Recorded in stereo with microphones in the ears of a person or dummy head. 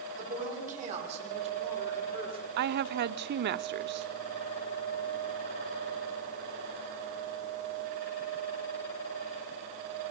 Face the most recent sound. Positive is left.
turn(degrees=-50)  # may be behind; listen again after turning